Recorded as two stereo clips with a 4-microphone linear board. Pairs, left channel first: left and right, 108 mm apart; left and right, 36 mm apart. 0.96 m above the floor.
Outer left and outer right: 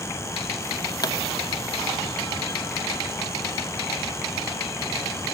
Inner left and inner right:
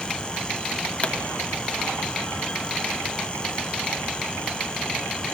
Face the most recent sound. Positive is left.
turn(degrees=45)  # may be behind; listen again after turning